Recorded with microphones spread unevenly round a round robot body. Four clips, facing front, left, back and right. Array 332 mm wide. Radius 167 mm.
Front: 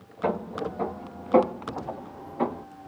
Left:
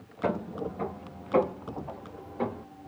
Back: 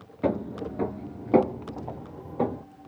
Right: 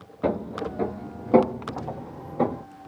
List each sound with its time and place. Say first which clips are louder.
0.2 s footsteps: right 4 dB, even; 125° right, 0.7 m; by 2.6 s 105° right, 1.7 m